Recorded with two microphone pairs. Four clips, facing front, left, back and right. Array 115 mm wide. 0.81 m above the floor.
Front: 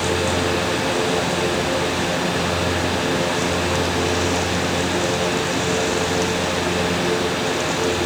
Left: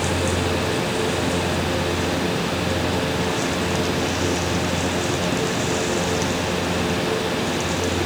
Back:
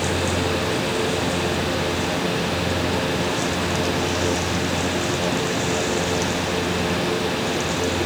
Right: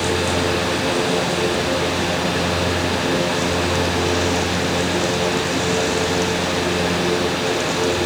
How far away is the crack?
I don't hear a crack.